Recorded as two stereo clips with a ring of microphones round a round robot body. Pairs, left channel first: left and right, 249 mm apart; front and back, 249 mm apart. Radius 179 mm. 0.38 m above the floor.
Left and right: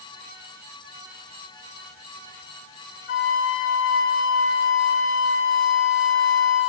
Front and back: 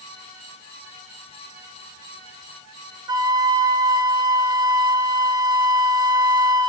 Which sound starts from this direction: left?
A flute, at 3.1 s.